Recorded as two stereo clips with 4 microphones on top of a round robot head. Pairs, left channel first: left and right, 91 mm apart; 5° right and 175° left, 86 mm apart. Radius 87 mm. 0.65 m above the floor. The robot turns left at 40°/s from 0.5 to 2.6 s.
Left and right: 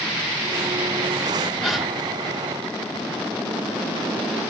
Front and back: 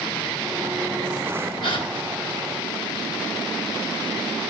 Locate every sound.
1.6 s a gasp: 5° left, 4 m; by 1.9 s 5° right, 4 m